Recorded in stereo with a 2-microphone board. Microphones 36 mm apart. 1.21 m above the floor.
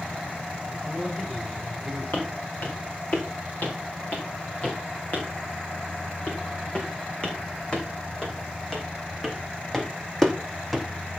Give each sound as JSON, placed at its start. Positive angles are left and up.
{"t": 0.7, "sound": "a man speaking", "side_deg": 0, "distance_m": 5.5}
{"t": 2.1, "sound": "footsteps", "side_deg": 45, "distance_m": 6.0}